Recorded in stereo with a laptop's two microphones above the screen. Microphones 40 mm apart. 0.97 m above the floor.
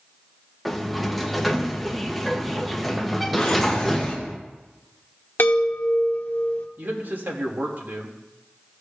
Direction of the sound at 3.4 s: 15° left (ahead or behind).